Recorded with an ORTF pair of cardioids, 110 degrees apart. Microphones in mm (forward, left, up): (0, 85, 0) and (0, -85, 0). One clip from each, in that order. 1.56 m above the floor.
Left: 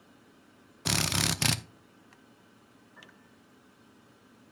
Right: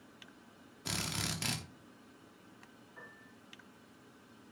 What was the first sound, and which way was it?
A drill, 50° left.